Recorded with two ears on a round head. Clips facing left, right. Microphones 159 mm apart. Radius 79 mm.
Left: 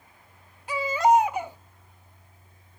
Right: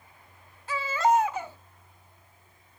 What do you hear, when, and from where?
0.7 s a baby crying: 15° left (ahead or behind), 0.9 m